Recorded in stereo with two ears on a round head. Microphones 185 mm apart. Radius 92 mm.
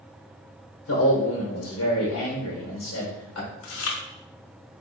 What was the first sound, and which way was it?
A man speaking, 70° left (ahead or behind).